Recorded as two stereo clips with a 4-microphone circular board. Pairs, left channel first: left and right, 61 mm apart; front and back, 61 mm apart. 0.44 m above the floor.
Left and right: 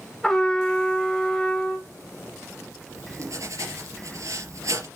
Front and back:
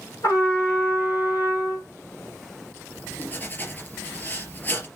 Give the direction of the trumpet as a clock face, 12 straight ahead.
12 o'clock.